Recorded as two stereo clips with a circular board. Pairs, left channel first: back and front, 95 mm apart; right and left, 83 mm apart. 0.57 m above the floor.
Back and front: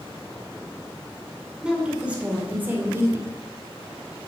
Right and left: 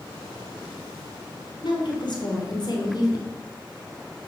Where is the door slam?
I don't hear a door slam.